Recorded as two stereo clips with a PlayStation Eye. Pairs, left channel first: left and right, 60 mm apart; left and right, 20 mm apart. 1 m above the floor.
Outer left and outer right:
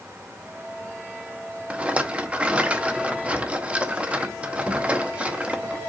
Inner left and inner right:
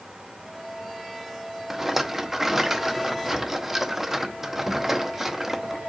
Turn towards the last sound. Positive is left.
turn(degrees=-20)  # may be behind; listen again after turning